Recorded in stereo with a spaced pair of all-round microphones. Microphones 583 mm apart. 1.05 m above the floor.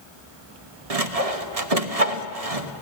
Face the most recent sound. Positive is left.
turn(degrees=-80)